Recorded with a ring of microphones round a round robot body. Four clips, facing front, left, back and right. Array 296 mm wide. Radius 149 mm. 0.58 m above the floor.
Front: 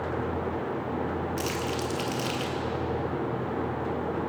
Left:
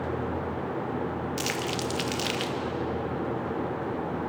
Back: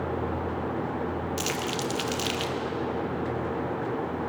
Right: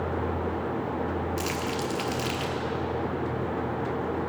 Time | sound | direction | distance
1.4 | crumpling | 125° left | 1.2 m